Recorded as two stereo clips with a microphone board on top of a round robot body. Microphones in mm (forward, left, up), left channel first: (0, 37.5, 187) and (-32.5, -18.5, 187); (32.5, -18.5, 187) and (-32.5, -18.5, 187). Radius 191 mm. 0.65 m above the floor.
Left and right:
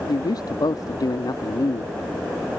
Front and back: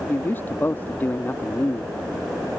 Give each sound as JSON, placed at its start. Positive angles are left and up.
{"t": 0.1, "sound": "a man speaking", "azimuth_deg": 60}